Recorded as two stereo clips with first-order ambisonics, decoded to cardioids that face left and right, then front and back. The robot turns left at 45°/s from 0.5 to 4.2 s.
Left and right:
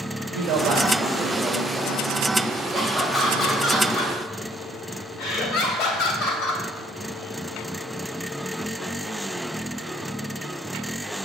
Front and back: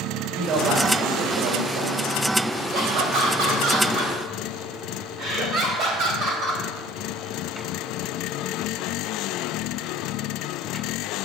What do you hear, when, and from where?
0.3 s a man speaking: 115° right, 2 m; by 2.2 s 170° left, 2 m
2.7 s laughter: 165° right, 3 m; by 6.6 s 130° left, 3 m